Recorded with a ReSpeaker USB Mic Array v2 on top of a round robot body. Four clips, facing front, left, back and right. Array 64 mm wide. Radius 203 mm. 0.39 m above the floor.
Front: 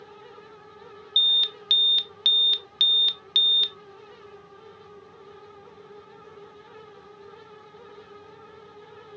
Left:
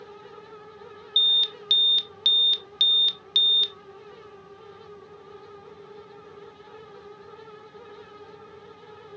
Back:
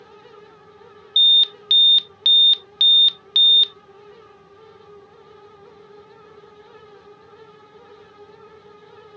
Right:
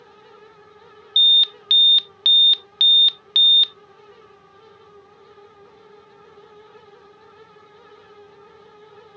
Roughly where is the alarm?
Right.